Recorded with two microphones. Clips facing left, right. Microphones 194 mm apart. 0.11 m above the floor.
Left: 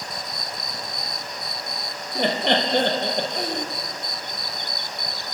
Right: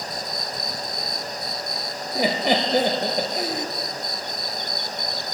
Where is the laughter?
5° right (ahead or behind), 1.8 m.